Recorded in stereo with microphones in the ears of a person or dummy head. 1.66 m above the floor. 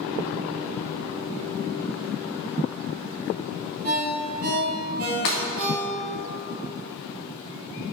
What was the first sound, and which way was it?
A ringtone, 45° right (ahead or behind).